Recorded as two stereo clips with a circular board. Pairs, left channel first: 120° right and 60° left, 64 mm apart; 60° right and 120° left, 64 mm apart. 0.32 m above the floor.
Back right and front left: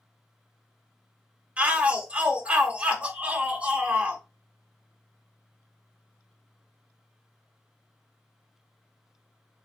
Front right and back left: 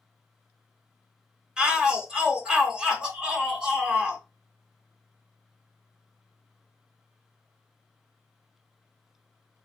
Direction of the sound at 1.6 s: 70° left.